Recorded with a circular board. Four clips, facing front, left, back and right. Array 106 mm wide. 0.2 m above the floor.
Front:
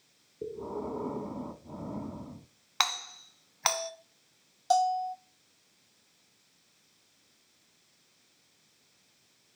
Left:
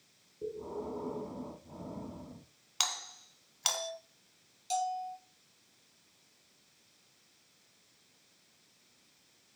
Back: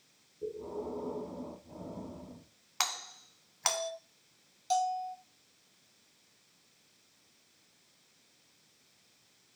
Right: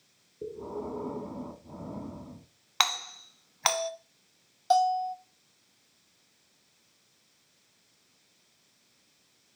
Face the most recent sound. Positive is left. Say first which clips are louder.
# right 10 dB, front 5 dB
turn(degrees=-60)